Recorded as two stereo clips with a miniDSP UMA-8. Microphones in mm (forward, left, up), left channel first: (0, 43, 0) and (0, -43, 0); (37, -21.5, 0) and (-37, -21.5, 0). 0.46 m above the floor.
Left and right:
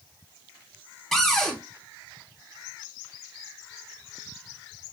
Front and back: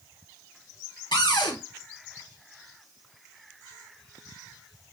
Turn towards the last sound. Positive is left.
turn(degrees=5)